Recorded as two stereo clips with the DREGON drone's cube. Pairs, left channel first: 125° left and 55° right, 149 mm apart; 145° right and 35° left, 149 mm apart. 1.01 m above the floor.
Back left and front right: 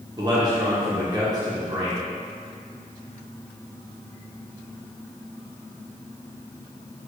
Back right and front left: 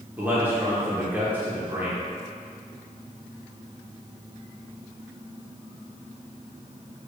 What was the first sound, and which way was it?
A man speaking, 30° right.